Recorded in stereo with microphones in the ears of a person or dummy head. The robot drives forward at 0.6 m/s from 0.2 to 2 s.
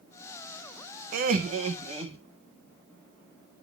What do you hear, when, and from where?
1.1 s laughter: 55° right (ahead or behind), 0.7 m; by 2.2 s 30° right (ahead or behind), 1.0 m